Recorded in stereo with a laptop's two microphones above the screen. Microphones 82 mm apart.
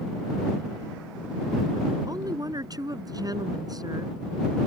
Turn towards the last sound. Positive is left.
turn(degrees=-50)  # may be behind; listen again after turning